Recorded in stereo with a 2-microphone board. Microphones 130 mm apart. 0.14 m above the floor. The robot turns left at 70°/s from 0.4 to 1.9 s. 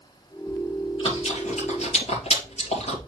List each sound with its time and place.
0.5 s chewing: 10° left (ahead or behind), 2.5 m; by 3.0 s 55° left (ahead or behind), 2.5 m